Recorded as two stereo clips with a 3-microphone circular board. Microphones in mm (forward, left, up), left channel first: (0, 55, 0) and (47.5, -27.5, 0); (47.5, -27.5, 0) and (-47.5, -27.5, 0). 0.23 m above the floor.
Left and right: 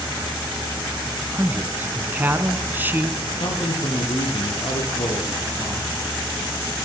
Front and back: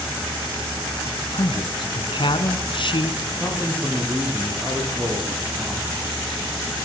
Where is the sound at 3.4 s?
110° left, 8.5 m.